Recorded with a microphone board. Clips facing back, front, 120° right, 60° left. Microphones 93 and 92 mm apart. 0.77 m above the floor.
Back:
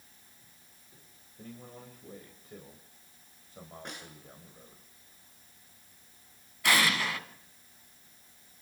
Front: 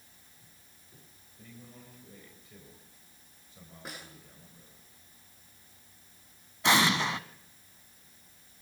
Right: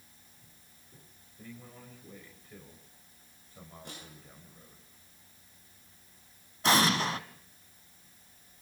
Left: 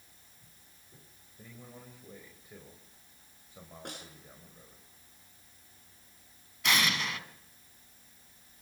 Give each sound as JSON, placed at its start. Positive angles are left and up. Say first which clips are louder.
{"t": 1.4, "sound": "a man speaking", "louder": "back 5 dB, right 2 dB", "azimuth_deg": 135, "distance_m": 4.5}
{"t": 3.9, "sound": "a snare drum", "louder": "front 3 dB, left 5 dB", "azimuth_deg": 85, "distance_m": 8.0}
{"t": 6.6, "sound": "an explosion", "louder": "front 2 dB, right 5 dB", "azimuth_deg": -65, "distance_m": 1.6}